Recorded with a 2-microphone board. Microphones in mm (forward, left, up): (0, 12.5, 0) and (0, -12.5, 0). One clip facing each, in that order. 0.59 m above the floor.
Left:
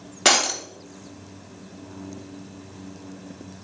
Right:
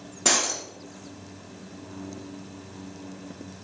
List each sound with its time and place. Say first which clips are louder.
0.2 s breaking glass: left 5 dB; 70° left (ahead or behind), 1.0 m